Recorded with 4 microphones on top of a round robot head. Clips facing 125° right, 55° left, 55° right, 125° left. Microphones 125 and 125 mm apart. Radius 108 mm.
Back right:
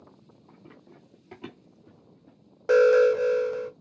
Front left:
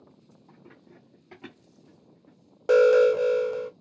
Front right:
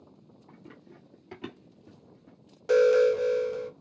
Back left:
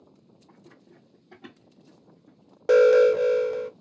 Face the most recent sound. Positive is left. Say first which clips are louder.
# even, back left 4 dB
turn(degrees=125)